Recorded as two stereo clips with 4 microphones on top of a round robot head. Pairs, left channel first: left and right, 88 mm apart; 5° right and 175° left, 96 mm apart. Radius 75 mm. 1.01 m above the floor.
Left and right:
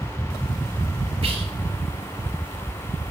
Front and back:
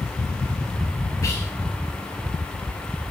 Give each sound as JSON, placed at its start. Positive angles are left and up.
{"t": 1.2, "sound": "whispering", "azimuth_deg": -70, "distance_m": 0.8}